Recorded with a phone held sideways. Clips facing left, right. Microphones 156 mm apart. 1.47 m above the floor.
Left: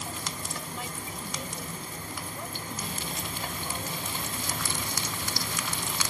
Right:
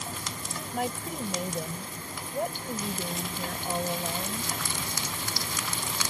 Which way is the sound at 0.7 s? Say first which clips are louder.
Right 7 dB; 60° right (ahead or behind).